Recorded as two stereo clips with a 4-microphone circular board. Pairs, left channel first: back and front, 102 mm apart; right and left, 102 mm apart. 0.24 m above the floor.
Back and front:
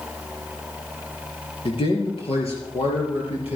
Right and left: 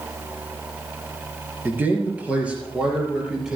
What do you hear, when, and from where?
1.6 s a man speaking: 160° left, 4 m; by 3.6 s 175° left, 5.5 m